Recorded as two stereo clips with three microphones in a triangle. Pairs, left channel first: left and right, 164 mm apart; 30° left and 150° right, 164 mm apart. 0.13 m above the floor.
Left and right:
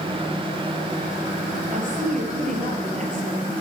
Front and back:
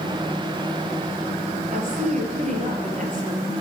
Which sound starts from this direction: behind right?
A woman speaking, at 1.7 s.